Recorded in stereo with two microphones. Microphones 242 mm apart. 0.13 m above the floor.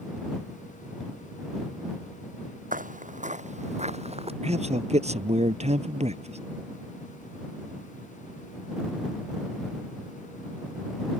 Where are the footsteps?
35° right (ahead or behind); by 4.3 s 25° right (ahead or behind).